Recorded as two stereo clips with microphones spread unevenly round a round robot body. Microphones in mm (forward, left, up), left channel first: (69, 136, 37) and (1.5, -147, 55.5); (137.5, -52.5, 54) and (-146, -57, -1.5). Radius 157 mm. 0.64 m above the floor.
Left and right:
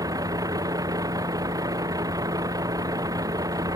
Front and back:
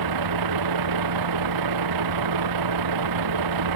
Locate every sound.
0.0 s a vehicle: 175° left